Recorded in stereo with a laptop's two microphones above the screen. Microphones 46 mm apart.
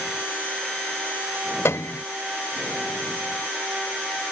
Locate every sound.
1.6 s a piano: 65° left (ahead or behind)